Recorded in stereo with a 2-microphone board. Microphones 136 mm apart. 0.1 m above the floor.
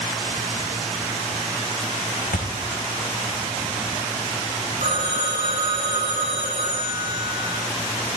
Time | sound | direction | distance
2.3 | a thud | 80° left | 2 m
4.8 | a phone ringing | 70° right (ahead or behind) | 7.5 m